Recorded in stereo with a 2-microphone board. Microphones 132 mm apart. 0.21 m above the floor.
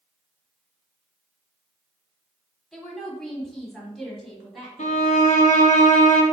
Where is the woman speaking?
5° left (ahead or behind), 1.3 m; by 5.4 s centre (ahead or behind), 1.6 m.